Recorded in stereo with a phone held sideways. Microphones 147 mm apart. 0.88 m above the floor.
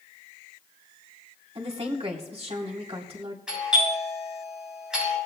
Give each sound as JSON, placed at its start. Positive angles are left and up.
{"t": 1.6, "sound": "a woman speaking", "side_deg": -40, "distance_m": 2.0}
{"t": 3.5, "sound": "a doorbell", "side_deg": -5, "distance_m": 8.0}